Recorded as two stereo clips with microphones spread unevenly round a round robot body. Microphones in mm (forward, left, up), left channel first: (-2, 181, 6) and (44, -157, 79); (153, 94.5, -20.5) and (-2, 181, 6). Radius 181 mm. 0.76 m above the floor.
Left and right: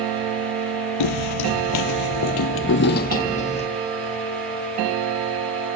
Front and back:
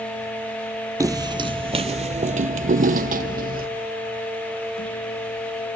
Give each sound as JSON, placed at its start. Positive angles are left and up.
{"t": 1.0, "sound": "footsteps", "azimuth_deg": 95, "distance_m": 1.1}